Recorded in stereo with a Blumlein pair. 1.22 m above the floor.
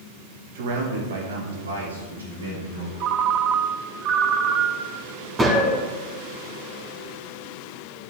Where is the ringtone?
35° right, 0.6 m.